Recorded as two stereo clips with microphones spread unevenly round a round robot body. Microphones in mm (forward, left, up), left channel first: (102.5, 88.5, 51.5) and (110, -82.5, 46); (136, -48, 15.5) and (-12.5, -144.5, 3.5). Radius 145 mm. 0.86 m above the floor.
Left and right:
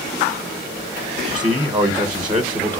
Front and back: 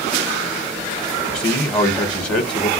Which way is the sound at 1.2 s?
30° right.